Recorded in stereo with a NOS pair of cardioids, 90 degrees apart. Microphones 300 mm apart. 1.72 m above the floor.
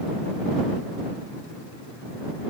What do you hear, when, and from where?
Only background noise.